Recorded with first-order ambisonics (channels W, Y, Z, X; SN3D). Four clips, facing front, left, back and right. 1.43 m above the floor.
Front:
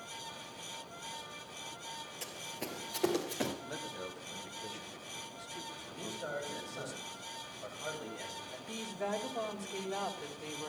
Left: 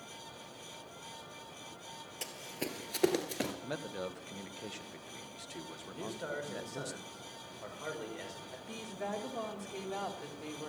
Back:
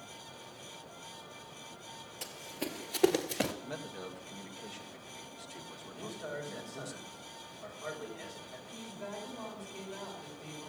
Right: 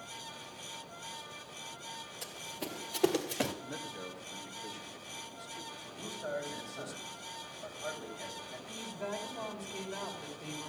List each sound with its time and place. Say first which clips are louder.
2.2 s running footsteps: left 3 dB, back 5 dB; 100° left, 2 m; by 3.5 s 160° right, 1.5 m
3.6 s a man speaking: left 2 dB, even; 95° left, 1.5 m
5.9 s a man speaking: right 1 dB, front 1 dB; 85° left, 5 m
8.7 s a woman speaking: left 1 dB, front 7 dB; 40° left, 3 m